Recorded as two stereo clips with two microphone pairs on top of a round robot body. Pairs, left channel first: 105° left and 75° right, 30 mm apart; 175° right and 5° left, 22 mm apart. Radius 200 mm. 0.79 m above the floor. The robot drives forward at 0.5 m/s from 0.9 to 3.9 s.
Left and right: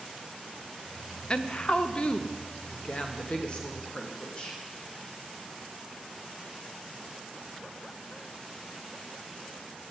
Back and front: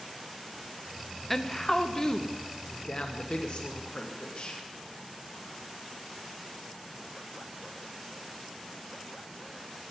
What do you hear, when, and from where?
1.3 s a woman speaking: 110° left, 1.2 m; by 4.6 s 155° left, 1.9 m